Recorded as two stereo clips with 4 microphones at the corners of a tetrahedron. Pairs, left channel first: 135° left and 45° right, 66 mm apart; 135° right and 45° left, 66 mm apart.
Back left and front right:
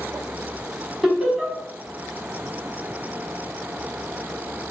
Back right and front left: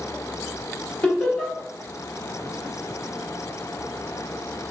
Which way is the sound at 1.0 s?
120° right.